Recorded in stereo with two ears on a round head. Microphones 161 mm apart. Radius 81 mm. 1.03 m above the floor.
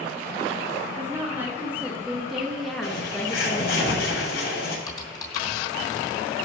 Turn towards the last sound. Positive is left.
turn(degrees=20)  # may be behind; listen again after turning